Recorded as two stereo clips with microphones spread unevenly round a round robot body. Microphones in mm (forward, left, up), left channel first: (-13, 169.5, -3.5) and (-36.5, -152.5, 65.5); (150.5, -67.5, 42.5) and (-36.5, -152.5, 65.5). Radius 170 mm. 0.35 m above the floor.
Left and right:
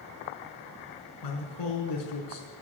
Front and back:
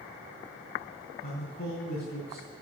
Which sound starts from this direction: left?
A man speaking, at 1.2 s.